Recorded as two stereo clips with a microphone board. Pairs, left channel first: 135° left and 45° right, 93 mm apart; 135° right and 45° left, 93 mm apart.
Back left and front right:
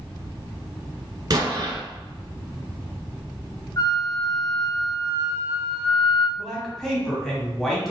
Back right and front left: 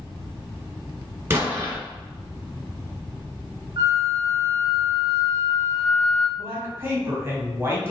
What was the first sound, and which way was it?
An explosion, 15° right.